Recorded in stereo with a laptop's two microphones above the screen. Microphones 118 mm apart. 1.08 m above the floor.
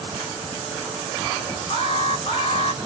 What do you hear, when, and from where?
1.7 s an alarm: 45° left (ahead or behind), 2 m